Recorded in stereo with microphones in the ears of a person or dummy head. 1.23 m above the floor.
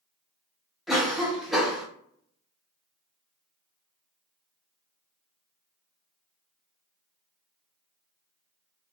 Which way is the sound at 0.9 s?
5° left (ahead or behind).